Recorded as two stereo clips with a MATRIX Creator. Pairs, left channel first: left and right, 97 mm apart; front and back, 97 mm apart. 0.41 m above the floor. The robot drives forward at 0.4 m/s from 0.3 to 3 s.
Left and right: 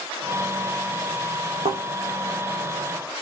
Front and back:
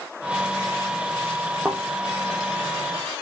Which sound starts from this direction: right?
A thud, at 1.6 s.